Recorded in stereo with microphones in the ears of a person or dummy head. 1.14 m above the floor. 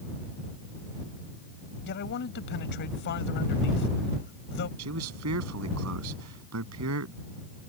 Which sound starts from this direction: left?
A man speaking, at 1.8 s.